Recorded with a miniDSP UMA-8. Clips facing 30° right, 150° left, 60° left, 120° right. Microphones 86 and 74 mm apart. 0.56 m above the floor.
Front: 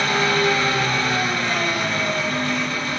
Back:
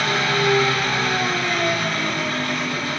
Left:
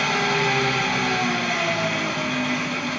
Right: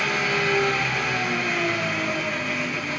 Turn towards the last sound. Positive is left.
turn(degrees=40)